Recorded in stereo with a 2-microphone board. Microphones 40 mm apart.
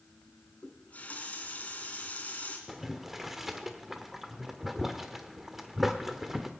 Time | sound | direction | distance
0.6 | a running tap | 40° left (ahead or behind) | 2.5 m
2.7 | boiling | 5° right (ahead or behind) | 1.2 m